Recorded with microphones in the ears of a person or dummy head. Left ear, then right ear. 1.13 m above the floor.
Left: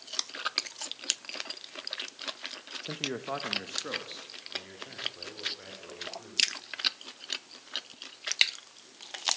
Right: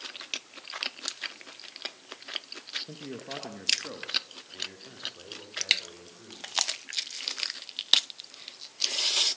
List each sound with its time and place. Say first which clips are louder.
2.8 s a man speaking: left 6 dB; 60° left (ahead or behind), 0.8 m; by 6.5 s 5° right (ahead or behind), 4 m